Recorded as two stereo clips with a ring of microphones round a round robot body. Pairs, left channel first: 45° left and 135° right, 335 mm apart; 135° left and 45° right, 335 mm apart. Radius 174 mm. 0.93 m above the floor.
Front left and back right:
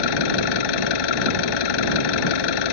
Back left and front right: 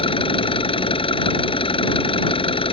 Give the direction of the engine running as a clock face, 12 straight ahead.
10 o'clock.